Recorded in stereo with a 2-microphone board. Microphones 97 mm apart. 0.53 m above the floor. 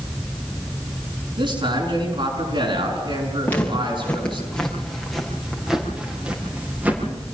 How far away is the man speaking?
About 6 m.